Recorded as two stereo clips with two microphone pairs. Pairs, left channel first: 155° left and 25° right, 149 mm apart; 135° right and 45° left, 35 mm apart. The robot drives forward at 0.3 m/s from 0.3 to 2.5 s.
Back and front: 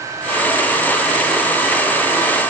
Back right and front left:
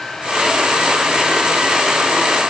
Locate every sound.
Only background noise.